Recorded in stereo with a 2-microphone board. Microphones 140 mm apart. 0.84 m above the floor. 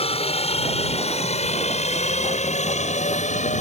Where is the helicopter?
45° left (ahead or behind); by 3.6 s 55° left (ahead or behind).